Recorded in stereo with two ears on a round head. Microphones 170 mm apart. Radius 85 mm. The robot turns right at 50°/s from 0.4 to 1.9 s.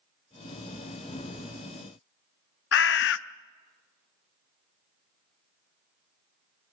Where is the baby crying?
I don't hear a baby crying.